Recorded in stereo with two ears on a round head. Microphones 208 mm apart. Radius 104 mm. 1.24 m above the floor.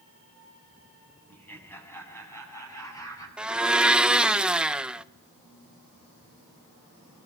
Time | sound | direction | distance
1.3 | laughter | 10° left (ahead or behind) | 7.5 m
3.4 | a blender | 5° right (ahead or behind) | 0.6 m